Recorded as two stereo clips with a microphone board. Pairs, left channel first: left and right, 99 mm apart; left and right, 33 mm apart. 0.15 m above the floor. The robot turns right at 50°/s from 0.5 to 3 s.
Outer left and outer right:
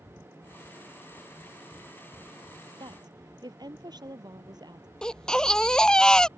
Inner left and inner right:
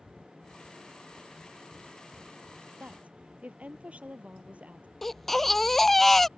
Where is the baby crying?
5° left (ahead or behind).